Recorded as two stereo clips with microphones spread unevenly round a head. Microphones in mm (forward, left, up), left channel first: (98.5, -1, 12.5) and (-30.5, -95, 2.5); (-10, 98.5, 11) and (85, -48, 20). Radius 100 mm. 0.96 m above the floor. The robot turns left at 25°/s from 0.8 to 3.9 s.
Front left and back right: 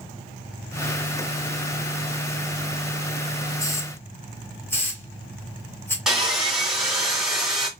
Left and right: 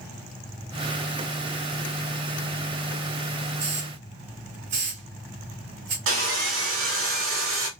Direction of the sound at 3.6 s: 30° right.